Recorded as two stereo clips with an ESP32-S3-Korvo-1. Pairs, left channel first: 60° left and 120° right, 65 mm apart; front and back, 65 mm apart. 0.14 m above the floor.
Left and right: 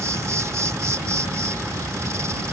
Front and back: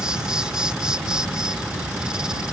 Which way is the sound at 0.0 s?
105° right.